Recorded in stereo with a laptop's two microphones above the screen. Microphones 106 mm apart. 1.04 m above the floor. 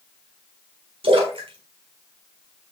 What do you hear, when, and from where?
1.0 s a splash: 55° right (ahead or behind), 4 m